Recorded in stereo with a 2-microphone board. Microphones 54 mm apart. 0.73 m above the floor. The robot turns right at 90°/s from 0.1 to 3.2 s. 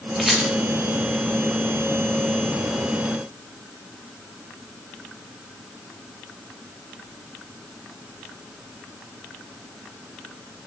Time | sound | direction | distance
0.2 | a rattle | centre (ahead or behind) | 1.7 m